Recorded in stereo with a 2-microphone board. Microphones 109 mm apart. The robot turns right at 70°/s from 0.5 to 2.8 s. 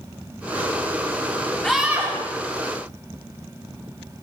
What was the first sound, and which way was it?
A scream, 170° left.